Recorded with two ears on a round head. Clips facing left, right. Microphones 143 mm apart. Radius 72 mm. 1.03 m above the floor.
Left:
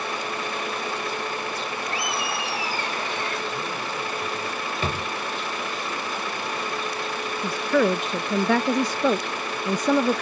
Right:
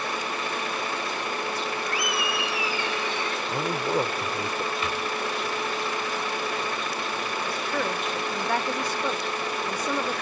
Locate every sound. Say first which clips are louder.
1.9 s laughter: even; 25° left (ahead or behind); by 3.4 s 45° left (ahead or behind)
3.5 s a man speaking: right 4 dB; 35° right (ahead or behind)
4.8 s a drawer: left 1 dB; 30° left (ahead or behind)
7.4 s a woman speaking: left 11 dB; 60° left (ahead or behind)